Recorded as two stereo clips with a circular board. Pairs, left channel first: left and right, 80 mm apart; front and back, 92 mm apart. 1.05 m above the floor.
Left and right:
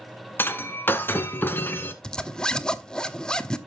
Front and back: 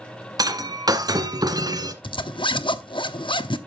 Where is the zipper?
10° left, 0.9 m.